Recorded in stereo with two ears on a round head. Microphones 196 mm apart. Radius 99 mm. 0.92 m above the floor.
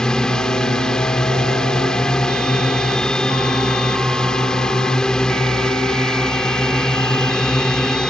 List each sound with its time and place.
0.0 s a drone: 5° left (ahead or behind)